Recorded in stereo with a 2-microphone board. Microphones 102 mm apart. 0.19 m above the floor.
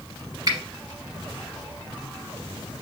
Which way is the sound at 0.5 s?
40° right (ahead or behind).